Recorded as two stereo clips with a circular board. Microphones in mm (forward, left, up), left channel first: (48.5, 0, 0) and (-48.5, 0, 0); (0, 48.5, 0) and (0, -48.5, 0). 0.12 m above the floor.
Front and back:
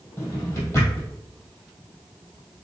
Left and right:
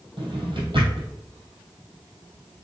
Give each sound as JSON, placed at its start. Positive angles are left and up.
{"t": 0.2, "sound": "a drawer", "azimuth_deg": -60, "distance_m": 2.0}